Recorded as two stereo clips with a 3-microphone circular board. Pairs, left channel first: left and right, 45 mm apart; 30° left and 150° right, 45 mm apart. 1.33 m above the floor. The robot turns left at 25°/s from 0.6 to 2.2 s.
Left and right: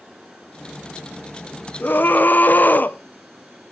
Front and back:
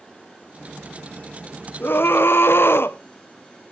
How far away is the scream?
About 0.7 m.